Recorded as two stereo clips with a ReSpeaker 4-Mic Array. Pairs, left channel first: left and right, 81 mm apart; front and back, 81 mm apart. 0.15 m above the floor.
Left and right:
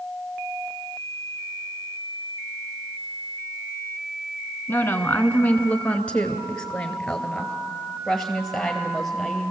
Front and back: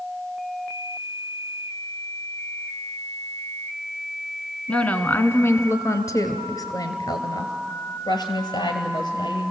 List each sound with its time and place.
4.7 s a woman speaking: 65° left, 1.3 m; by 9.5 s straight ahead, 3.5 m